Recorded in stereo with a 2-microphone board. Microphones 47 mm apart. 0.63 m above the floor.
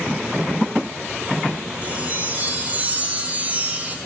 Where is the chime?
30° right (ahead or behind), 5.5 m.